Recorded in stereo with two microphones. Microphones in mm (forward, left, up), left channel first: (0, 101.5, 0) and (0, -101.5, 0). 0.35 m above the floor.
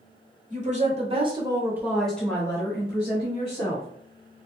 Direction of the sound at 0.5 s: 35° right (ahead or behind).